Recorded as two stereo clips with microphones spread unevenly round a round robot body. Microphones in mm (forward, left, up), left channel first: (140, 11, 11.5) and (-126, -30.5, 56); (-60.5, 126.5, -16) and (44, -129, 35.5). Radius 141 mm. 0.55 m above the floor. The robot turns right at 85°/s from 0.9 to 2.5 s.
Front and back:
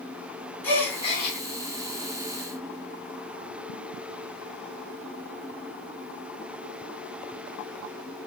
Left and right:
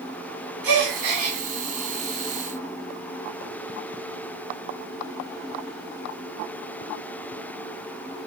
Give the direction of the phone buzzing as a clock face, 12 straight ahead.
I don't hear a phone buzzing.